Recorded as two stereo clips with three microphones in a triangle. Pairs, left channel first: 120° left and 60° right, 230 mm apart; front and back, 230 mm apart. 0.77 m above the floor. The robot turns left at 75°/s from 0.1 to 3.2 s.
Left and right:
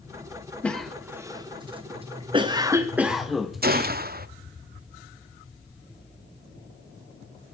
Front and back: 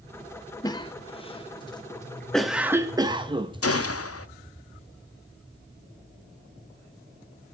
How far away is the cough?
About 0.6 m.